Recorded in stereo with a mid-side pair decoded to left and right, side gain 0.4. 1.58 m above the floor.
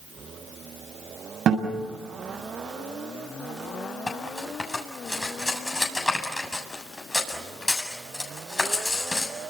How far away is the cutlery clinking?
About 7.5 m.